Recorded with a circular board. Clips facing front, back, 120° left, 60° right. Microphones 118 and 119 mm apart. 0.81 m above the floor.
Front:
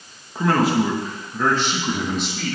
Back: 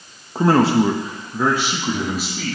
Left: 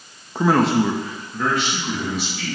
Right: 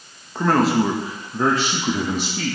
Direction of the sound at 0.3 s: 170° right.